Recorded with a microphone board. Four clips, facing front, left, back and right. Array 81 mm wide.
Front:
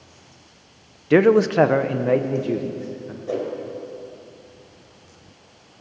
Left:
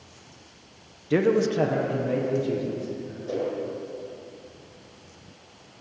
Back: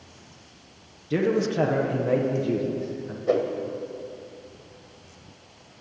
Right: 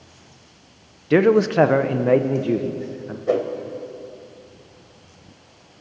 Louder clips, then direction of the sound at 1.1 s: Right 6 dB, front 9 dB; 25° right.